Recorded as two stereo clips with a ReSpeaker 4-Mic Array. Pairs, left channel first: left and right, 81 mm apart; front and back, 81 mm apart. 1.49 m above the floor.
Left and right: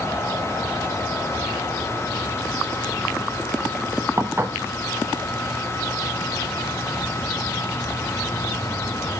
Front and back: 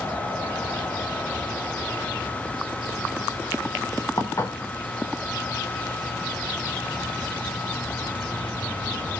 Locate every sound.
4.2 s dishes clattering: 35° right, 1.0 m